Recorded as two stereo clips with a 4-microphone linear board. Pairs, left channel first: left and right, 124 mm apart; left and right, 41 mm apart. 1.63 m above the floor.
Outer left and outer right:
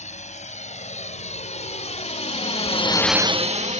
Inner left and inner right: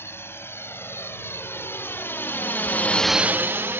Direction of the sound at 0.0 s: 80° left.